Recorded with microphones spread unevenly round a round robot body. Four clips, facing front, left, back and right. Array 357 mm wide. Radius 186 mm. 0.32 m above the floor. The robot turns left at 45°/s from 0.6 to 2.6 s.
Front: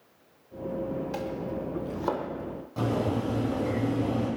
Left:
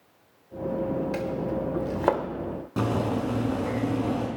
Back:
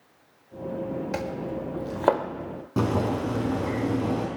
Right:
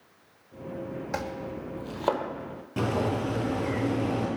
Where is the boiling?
175° left, 5 m.